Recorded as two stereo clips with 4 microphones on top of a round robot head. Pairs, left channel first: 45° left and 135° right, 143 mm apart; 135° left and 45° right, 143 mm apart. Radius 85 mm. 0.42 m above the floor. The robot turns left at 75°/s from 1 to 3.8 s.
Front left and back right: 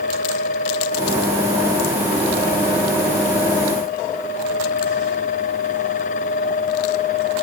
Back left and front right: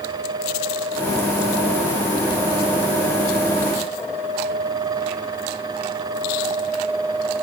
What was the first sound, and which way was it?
Only background noise.